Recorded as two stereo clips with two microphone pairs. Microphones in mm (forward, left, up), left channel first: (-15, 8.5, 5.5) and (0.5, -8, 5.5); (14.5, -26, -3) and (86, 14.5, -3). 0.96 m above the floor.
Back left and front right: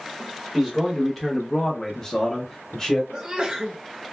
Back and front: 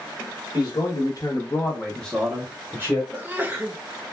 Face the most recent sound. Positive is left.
turn(degrees=-25)